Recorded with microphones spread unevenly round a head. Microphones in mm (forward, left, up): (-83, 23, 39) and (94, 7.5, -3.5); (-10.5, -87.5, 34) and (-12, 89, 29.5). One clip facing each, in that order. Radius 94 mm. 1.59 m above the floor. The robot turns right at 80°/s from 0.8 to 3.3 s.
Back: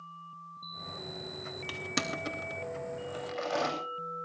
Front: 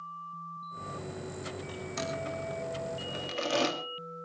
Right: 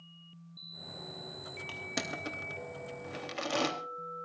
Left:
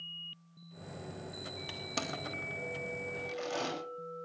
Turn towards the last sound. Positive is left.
turn(degrees=-60)